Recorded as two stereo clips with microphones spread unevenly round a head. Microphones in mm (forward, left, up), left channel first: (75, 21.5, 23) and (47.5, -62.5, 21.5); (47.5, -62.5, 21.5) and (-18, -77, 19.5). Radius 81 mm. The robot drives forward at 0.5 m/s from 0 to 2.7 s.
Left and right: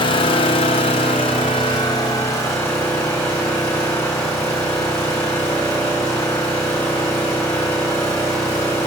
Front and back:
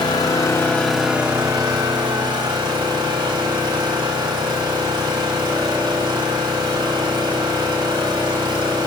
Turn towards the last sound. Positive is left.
turn(degrees=150)